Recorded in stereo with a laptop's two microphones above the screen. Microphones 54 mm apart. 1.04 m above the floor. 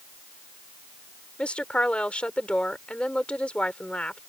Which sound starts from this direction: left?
A woman speaking, at 1.4 s.